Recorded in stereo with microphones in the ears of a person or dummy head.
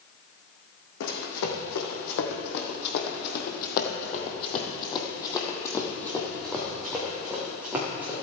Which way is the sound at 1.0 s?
65° left (ahead or behind).